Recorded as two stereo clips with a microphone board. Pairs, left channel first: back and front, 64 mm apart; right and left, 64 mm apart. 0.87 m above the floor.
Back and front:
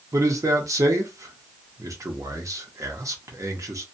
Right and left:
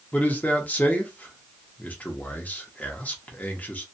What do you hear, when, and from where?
0.1 s a man speaking: 25° right, 0.8 m